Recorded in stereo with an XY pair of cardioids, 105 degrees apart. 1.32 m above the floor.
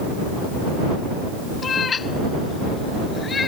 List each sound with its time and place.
1.6 s a cat meowing: 45° left; by 3.5 s 35° left